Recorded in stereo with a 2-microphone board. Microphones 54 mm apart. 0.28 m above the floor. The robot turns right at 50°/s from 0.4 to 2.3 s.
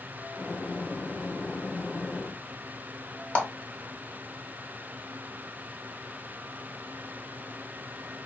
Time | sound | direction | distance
3.4 | a clap | 25° left (ahead or behind) | 0.8 m